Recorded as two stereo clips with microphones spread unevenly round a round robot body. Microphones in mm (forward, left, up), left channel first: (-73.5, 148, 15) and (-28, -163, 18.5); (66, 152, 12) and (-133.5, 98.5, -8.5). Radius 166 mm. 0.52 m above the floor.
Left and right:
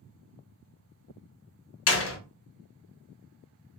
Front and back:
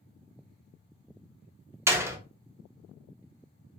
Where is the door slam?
125° left, 0.6 m.